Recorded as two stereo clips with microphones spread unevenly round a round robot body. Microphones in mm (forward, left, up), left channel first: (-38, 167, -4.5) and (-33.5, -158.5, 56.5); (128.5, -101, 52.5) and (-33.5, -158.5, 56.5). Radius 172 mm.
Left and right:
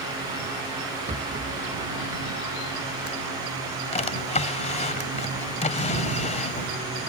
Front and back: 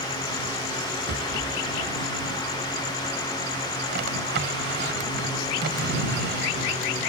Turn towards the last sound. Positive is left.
turn(degrees=160)